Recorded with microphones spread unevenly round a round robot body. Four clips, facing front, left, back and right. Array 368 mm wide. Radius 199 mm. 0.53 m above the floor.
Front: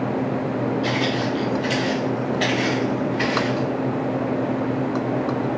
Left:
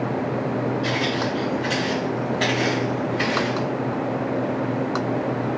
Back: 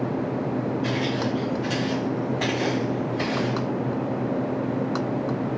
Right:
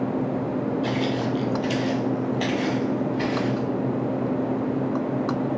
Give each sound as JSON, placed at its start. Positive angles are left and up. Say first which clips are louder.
{"t": 0.8, "sound": "footsteps", "louder": "left 1 dB, front 3 dB", "azimuth_deg": -30, "distance_m": 0.9}